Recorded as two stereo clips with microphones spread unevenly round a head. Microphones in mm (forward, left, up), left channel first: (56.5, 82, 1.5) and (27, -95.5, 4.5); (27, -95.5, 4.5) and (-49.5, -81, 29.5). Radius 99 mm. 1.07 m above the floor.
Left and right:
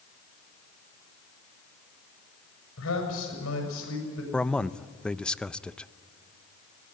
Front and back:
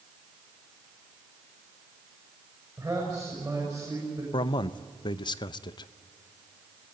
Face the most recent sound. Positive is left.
turn(degrees=-5)